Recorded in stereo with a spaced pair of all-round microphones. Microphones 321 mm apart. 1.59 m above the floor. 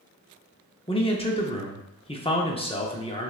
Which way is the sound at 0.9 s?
15° left (ahead or behind).